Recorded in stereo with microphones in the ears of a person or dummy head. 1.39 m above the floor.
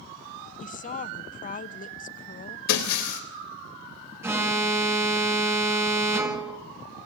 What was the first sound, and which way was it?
A woman speaking, 40° left (ahead or behind).